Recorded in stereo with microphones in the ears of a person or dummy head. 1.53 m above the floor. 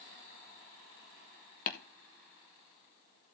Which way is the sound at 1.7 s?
45° left (ahead or behind).